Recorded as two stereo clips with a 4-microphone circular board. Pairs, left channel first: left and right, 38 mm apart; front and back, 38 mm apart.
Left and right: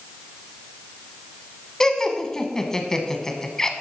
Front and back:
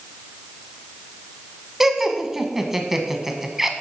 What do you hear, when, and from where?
1.8 s laughter: 120° left, 1.0 m